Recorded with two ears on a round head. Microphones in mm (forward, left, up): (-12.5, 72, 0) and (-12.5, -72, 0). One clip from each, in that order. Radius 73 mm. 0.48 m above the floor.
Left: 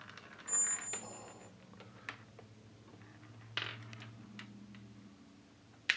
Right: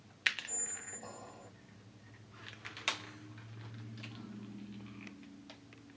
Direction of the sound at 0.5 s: 10° right (ahead or behind).